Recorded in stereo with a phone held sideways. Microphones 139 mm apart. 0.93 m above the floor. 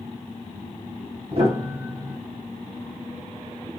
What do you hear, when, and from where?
1.3 s a piano: 45° right (ahead or behind), 1.5 m